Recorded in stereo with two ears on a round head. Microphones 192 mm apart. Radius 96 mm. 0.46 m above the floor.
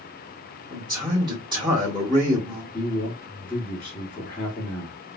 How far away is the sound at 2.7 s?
About 1.1 m.